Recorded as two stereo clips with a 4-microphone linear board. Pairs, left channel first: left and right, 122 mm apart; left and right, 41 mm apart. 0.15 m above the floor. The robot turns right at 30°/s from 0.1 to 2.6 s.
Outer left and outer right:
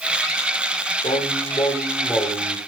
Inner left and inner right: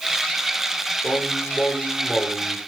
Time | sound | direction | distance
1.0 | singing | 130° left | 6.5 m